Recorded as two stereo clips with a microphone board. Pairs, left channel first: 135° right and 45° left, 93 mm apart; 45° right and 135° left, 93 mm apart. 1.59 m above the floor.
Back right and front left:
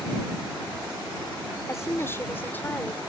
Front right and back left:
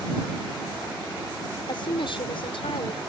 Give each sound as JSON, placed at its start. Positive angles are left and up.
{"t": 1.7, "sound": "a woman speaking", "azimuth_deg": -75}